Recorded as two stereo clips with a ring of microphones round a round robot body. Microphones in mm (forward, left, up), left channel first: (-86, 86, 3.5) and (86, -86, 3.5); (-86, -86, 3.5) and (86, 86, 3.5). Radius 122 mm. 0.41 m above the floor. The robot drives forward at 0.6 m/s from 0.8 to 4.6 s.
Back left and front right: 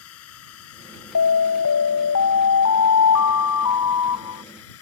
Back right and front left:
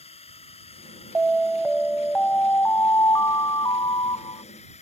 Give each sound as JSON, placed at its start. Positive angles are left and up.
{"t": 0.0, "sound": "a drone", "azimuth_deg": 160}
{"t": 1.1, "sound": "an alarm", "azimuth_deg": 130}